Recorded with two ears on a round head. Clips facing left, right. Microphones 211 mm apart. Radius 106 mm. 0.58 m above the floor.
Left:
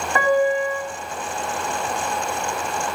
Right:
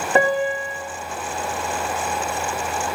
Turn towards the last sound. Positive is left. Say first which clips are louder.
# left 1 dB
turn(degrees=-25)  # may be behind; listen again after turning